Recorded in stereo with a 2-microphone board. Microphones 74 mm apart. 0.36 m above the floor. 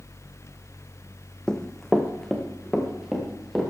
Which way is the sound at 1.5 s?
10° left (ahead or behind).